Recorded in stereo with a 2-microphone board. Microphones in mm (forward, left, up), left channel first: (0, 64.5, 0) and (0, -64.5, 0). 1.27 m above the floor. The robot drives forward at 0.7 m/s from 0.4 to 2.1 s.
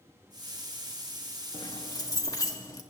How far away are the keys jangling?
About 0.9 m.